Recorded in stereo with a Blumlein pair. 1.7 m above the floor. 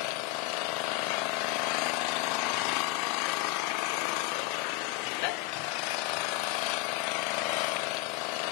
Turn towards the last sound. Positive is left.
turn(degrees=45)